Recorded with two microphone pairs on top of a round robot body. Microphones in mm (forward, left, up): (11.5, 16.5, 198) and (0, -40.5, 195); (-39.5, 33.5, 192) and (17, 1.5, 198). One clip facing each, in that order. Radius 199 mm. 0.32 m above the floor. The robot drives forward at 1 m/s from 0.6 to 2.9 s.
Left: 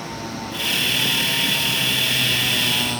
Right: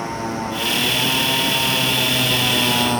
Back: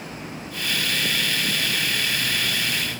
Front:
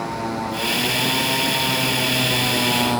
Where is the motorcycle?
35° right; by 3.0 s 45° right.